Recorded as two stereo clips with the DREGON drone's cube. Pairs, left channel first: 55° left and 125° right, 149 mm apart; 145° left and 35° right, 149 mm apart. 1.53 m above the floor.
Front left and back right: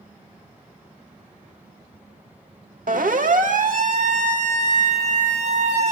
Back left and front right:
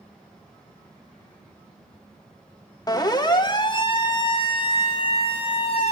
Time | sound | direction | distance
2.9 | a siren | 150° right | 2.5 m